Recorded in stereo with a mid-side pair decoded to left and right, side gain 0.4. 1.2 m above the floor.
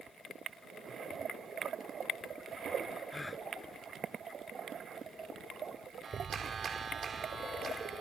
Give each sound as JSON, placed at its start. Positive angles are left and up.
{"t": 3.1, "sound": "a gasp", "azimuth_deg": 20}
{"t": 6.0, "sound": "a clap", "azimuth_deg": -45}